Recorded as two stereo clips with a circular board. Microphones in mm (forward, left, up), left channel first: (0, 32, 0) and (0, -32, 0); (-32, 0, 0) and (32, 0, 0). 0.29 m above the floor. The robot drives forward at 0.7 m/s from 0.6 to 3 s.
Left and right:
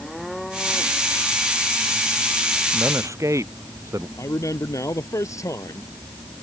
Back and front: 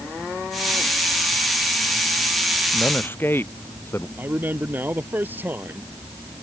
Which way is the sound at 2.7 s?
125° right.